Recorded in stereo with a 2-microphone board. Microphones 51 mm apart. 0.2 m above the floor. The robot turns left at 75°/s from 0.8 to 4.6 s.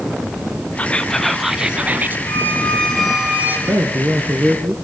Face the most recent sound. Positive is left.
turn(degrees=-150)